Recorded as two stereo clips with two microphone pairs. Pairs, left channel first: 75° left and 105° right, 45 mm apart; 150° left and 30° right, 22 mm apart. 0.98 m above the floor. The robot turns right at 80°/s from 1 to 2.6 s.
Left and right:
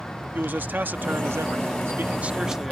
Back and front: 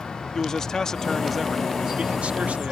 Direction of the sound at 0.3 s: 145° right.